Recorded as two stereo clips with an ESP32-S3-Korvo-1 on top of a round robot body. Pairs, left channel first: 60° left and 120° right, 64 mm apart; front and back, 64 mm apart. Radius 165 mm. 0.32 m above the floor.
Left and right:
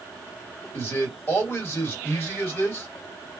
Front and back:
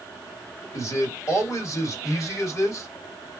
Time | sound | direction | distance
0.7 | a man speaking | 15° left | 1.7 m